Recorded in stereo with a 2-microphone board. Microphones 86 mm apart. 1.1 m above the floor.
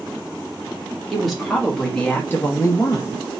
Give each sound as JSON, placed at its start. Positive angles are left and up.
{"t": 1.1, "sound": "a woman speaking", "side_deg": 0, "distance_m": 1.7}